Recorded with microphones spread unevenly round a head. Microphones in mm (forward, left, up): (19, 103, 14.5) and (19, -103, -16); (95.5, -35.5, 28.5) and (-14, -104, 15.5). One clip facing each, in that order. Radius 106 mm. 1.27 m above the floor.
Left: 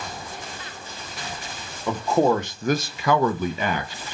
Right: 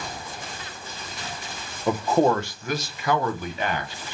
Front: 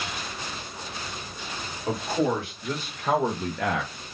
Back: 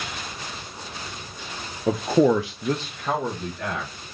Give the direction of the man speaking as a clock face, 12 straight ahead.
6 o'clock.